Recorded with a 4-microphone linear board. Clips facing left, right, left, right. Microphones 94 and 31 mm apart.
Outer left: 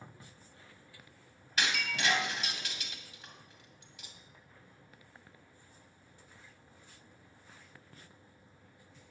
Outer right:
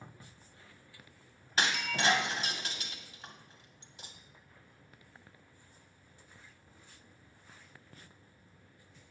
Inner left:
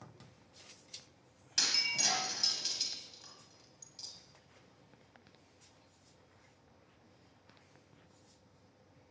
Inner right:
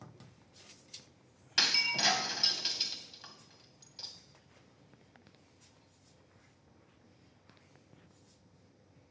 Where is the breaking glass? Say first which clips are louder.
Outer right 2 dB, inner right 4 dB; 40° right (ahead or behind), 1.8 m.